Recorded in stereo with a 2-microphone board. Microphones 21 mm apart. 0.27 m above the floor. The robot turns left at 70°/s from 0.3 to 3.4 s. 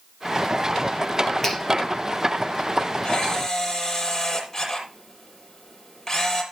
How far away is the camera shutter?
About 6.5 m.